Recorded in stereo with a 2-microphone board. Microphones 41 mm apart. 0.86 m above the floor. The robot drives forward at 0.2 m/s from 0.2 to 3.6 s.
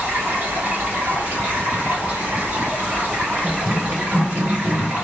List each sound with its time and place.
0.0 s running water: 60° right (ahead or behind), 1.1 m; by 5.0 s 40° right (ahead or behind), 1.4 m
3.4 s running footsteps: 15° left (ahead or behind), 0.8 m; by 5.0 s 45° right (ahead or behind), 1.1 m